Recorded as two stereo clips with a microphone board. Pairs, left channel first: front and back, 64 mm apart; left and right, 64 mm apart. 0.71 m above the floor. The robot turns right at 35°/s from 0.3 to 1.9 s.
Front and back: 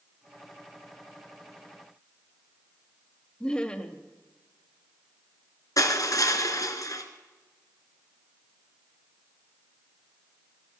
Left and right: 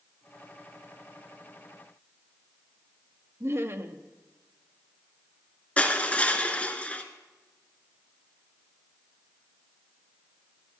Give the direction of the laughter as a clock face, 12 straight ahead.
2 o'clock.